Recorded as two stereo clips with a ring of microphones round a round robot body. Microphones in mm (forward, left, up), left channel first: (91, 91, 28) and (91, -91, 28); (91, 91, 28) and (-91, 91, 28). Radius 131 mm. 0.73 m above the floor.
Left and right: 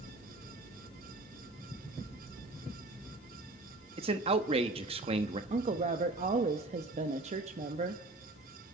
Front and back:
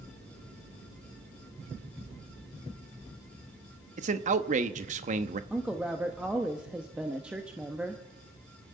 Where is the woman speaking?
100° right, 0.8 m.